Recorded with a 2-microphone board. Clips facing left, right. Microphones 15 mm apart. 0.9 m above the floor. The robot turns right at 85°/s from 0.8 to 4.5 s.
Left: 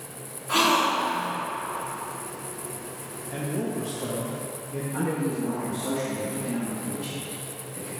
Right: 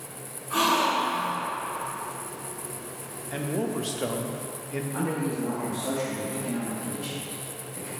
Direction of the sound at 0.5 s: 70° left.